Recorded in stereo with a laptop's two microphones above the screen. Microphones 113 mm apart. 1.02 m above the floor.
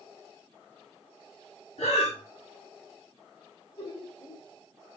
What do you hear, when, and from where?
1.8 s breathing: 65° left (ahead or behind), 1.4 m
3.8 s laughter: 70° left (ahead or behind), 1.9 m